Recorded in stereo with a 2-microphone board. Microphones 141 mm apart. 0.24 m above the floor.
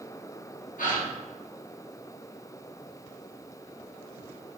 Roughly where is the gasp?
Left.